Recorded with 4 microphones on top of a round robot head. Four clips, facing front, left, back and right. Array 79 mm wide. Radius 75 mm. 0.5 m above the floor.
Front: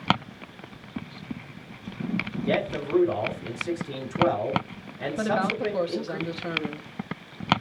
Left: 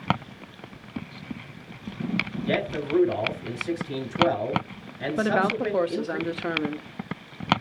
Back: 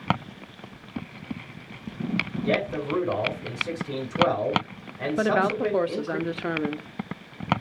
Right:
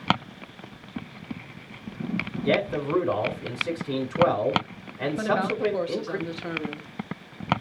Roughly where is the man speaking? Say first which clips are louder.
Right 4 dB, even; behind right.